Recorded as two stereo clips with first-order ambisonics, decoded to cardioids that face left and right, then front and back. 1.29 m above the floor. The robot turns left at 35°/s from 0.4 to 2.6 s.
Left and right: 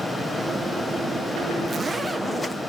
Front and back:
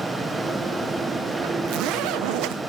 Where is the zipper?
160° right, 0.8 m; by 2.6 s 165° left, 0.8 m.